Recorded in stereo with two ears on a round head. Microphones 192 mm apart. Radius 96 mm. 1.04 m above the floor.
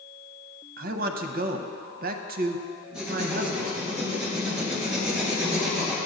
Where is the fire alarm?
No fire alarm in this recording.